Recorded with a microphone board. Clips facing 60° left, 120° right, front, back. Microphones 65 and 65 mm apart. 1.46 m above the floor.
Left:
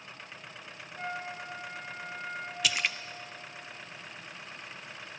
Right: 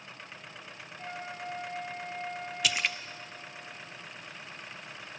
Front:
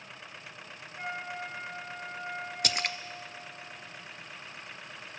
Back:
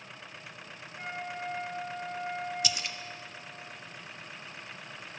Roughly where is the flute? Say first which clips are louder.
Left 3 dB, front 1 dB; left.